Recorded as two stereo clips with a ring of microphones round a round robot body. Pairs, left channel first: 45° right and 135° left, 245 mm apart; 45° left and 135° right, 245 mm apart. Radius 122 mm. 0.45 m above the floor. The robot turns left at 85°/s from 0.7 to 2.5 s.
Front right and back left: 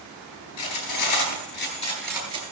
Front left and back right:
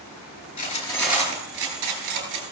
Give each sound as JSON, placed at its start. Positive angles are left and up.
{"t": 0.6, "sound": "cutlery clinking", "azimuth_deg": -15, "distance_m": 4.0}